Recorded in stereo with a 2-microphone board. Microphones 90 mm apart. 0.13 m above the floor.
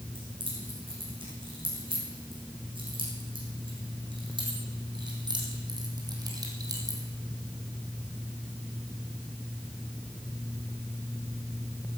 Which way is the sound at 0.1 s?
80° right.